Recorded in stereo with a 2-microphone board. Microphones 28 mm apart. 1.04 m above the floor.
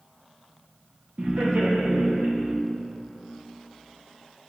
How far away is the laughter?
About 1.6 m.